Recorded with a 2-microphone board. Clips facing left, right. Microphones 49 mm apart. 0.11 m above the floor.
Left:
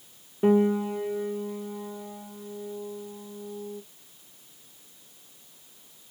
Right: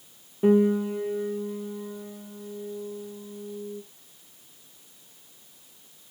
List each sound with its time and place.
0.4 s a piano: 25° left (ahead or behind), 1.6 m